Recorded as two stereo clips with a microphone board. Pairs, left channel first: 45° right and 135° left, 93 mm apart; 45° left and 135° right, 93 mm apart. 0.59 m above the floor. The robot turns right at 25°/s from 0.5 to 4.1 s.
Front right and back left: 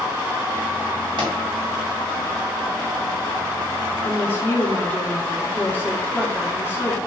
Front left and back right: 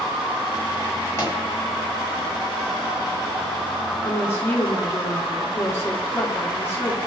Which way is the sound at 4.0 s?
5° left.